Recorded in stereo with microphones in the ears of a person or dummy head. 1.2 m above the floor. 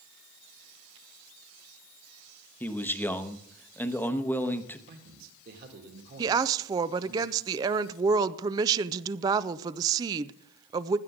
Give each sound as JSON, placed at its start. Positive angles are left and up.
{"t": 2.6, "sound": "a man speaking", "side_deg": 10, "distance_m": 1.0}
{"t": 4.9, "sound": "a man speaking", "side_deg": -50, "distance_m": 2.0}
{"t": 6.2, "sound": "a woman speaking", "side_deg": -20, "distance_m": 0.6}